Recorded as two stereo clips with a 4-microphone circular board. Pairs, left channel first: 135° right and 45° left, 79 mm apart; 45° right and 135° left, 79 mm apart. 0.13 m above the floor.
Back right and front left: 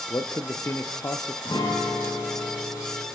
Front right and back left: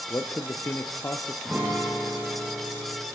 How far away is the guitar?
About 8 m.